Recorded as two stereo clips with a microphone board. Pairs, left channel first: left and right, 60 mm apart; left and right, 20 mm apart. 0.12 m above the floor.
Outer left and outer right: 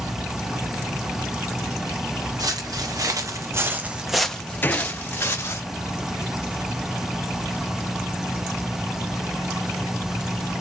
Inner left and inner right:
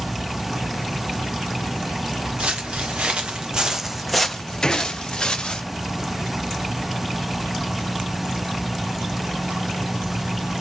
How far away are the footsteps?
About 1.0 m.